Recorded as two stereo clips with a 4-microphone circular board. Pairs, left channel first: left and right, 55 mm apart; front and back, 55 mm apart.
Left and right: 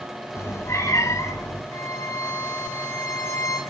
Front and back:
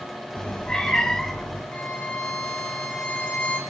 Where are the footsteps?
No footsteps in this recording.